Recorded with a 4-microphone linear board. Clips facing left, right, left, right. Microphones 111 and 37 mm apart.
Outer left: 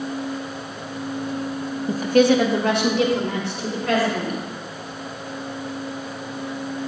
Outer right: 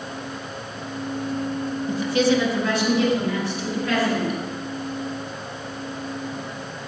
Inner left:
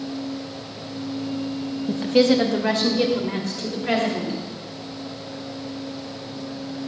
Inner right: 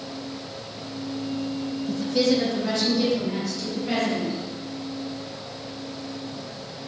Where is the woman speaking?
35° left (ahead or behind), 0.6 m; by 4.4 s 80° left, 3 m.